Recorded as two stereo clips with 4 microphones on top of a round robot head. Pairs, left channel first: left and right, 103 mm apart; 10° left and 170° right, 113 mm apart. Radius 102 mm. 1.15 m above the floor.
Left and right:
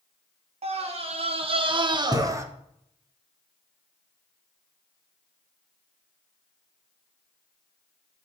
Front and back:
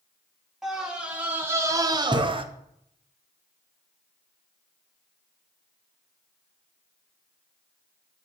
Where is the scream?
85° right, 1.4 m; by 2.5 s 150° right, 0.9 m.